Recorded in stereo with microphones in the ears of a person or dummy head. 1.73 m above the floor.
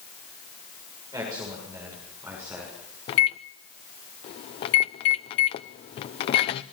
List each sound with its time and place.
1.1 s a man speaking: 20° right (ahead or behind), 7 m; by 2.7 s 15° right (ahead or behind), 6.5 m
3.1 s a microwave: 35° left (ahead or behind), 0.6 m